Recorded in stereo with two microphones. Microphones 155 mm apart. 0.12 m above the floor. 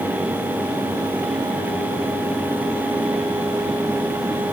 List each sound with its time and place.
Only background noise.